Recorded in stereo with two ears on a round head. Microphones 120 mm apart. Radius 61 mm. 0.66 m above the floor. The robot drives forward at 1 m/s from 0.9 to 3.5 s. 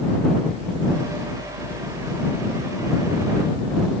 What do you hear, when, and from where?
Only background noise.